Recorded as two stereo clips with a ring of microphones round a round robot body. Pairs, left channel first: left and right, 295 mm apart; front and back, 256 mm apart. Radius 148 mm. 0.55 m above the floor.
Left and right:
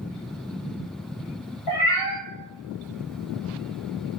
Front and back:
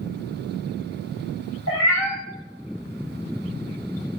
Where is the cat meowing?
35° left, 1.4 m.